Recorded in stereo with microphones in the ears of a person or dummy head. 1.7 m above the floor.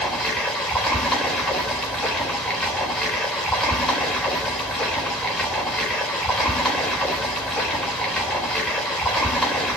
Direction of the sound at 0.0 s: 5° left (ahead or behind).